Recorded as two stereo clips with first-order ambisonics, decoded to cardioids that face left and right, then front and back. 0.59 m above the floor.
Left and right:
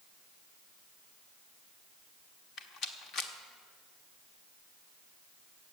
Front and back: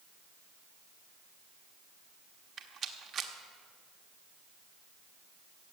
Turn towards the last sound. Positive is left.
turn(degrees=130)